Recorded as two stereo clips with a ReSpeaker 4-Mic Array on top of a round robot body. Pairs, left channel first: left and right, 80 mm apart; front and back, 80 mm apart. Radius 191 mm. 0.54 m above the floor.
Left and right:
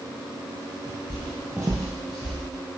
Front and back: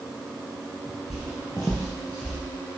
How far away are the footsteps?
About 0.7 m.